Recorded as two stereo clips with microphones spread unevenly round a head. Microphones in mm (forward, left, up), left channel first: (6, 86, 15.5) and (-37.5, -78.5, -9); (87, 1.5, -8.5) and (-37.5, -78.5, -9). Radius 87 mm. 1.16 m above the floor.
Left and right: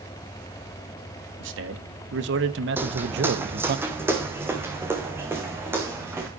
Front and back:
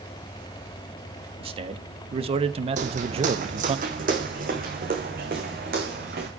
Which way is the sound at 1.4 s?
95° right.